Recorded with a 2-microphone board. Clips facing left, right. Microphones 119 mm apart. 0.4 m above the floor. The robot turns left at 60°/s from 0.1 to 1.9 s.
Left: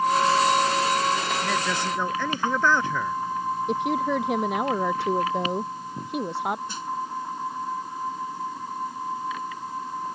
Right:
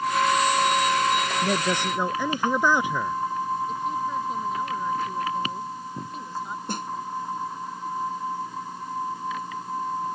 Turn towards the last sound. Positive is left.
turn(degrees=-55)  # may be behind; listen again after turning